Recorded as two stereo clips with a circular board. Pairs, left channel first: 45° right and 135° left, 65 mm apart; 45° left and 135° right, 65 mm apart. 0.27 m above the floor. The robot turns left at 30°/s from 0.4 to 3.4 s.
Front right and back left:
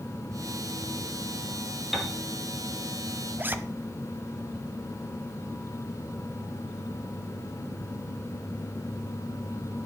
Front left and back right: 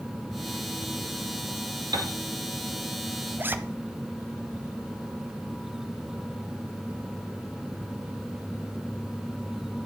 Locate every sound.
1.9 s a piano: 140° right, 1.8 m; by 2.1 s 145° right, 1.8 m
3.4 s a zipper: straight behind, 0.9 m